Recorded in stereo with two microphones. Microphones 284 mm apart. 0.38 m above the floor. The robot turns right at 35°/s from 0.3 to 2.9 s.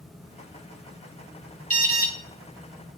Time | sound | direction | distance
1.7 | an alarm | 50° right (ahead or behind) | 2 m